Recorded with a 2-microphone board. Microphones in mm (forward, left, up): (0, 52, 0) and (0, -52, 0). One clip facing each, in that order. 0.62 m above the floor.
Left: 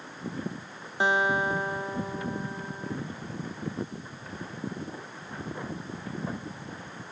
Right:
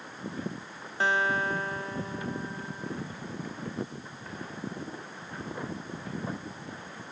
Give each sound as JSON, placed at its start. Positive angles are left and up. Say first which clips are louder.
{"t": 1.0, "sound": "a guitar", "louder": "left 2 dB", "side_deg": 15}